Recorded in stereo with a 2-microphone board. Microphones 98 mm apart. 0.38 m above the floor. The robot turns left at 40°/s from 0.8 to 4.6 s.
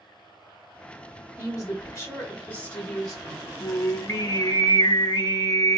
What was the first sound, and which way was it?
A woman speaking, 80° left.